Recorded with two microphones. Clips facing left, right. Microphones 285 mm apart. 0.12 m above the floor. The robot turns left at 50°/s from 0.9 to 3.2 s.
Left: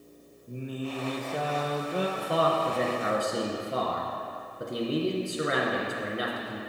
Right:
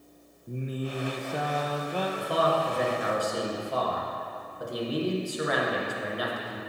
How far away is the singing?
About 0.8 m.